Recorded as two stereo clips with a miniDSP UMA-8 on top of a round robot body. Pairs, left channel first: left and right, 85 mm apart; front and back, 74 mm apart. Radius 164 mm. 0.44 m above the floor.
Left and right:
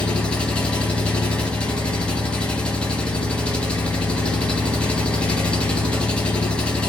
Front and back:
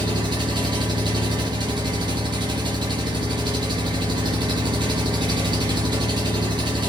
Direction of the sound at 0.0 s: 170° left.